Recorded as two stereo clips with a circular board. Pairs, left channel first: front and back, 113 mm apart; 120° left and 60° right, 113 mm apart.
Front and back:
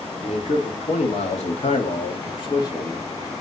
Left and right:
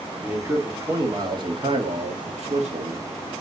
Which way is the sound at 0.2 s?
10° left.